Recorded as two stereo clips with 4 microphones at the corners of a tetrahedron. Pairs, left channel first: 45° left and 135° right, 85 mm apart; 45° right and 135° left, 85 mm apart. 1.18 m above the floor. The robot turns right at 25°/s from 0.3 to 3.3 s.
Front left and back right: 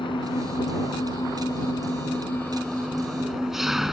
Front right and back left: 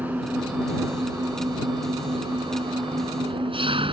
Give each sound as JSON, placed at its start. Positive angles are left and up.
{"t": 0.0, "sound": "an engine running", "azimuth_deg": 65}